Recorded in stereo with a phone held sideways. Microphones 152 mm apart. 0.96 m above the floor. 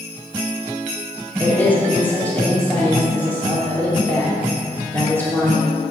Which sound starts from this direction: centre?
A woman speaking, at 1.4 s.